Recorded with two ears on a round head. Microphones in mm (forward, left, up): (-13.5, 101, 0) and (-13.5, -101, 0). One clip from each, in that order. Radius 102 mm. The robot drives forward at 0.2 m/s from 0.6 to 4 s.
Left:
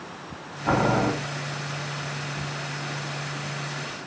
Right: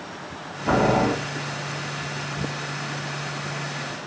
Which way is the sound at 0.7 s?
35° left (ahead or behind).